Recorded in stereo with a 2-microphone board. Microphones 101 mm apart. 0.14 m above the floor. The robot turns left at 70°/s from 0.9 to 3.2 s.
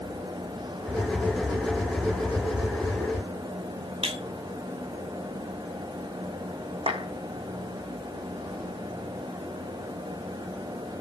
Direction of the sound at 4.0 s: 80° right.